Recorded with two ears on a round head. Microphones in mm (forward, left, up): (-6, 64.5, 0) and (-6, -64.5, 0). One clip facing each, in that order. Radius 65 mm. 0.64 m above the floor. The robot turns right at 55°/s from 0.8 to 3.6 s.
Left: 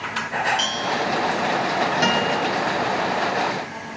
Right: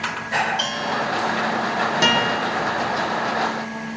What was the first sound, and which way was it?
A bell, 30° left (ahead or behind).